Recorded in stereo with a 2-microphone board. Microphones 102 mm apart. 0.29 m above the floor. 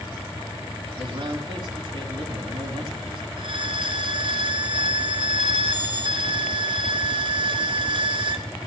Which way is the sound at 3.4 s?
60° right (ahead or behind).